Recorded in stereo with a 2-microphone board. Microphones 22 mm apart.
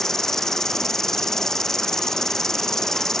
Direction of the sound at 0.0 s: 20° left (ahead or behind).